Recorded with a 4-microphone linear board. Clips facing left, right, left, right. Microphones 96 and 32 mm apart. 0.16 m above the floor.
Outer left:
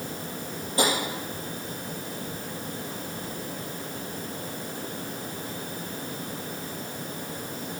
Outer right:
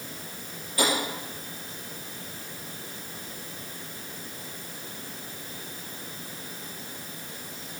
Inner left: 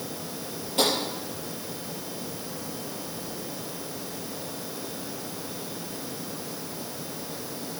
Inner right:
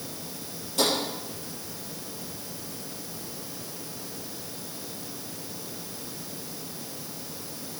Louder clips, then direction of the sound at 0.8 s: Outer left 1 dB, inner left 1 dB; 30° left (ahead or behind).